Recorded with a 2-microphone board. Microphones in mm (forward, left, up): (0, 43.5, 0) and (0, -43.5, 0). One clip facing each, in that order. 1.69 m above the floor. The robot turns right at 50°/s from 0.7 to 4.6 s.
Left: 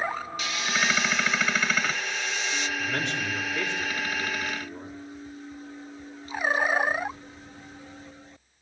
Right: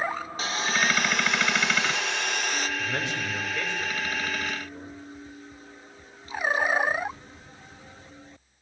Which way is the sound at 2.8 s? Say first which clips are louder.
Left 1 dB; 25° right.